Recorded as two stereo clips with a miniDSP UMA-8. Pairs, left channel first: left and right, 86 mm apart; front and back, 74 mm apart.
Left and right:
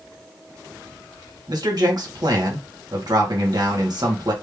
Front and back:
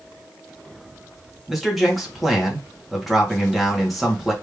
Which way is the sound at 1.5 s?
90° right.